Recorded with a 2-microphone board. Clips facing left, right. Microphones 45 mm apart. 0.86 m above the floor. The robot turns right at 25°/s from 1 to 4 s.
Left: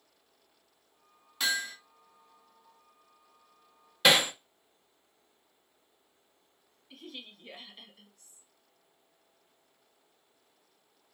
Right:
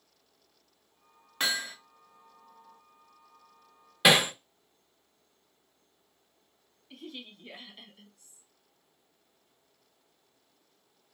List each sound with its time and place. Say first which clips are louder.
1.4 s hammering: even; 35° right (ahead or behind), 0.7 m; by 1.8 s 45° right (ahead or behind), 0.7 m
4.0 s hammering: right 1 dB; 10° right (ahead or behind), 0.6 m
6.9 s a woman speaking: right 2 dB; centre (ahead or behind), 0.6 m